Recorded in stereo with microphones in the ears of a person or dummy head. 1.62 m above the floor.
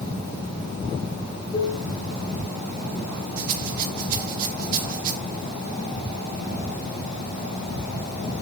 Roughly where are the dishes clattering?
Left.